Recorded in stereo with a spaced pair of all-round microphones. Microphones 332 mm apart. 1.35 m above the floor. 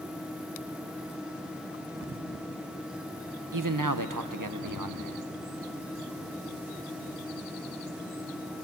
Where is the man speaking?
70° right (ahead or behind), 1.0 m.